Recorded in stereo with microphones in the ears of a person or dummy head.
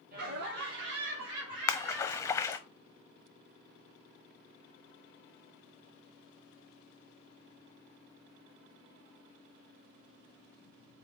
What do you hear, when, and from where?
0.1 s laughter: 40° right (ahead or behind), 0.9 m; by 2.7 s 70° right (ahead or behind), 2 m
1.7 s a splash: 20° left (ahead or behind), 0.6 m